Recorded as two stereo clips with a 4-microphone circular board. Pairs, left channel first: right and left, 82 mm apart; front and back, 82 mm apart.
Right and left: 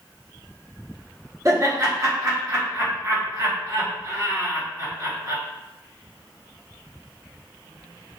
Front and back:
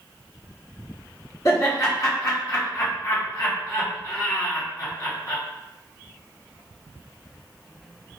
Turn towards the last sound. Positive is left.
turn(degrees=40)